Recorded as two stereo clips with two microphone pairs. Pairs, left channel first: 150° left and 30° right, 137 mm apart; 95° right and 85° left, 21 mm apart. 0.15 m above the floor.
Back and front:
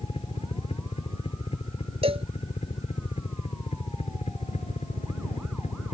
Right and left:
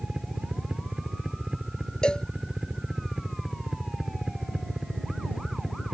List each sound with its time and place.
0.0 s a helicopter: 115° left; by 5.9 s 135° left
2.0 s a cowbell: 65° right